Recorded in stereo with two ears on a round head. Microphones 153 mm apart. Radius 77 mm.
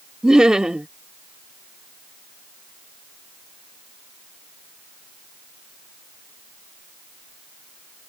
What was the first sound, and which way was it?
Laughter, 5° right (ahead or behind).